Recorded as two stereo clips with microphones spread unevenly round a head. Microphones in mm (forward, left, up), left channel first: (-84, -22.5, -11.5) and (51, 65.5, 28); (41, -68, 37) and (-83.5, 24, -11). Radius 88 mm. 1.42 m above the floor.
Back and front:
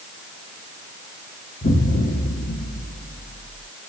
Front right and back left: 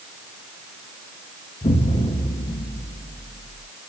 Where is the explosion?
90° right, 0.8 m.